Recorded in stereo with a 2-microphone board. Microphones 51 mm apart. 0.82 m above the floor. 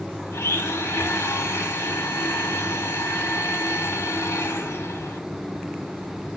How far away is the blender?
About 0.9 m.